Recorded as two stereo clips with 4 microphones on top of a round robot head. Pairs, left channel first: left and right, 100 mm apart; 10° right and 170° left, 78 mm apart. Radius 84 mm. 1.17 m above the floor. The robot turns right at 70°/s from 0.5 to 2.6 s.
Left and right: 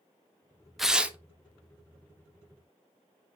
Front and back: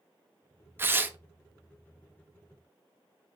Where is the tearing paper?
175° right, 0.7 m; by 1.2 s 150° right, 0.7 m.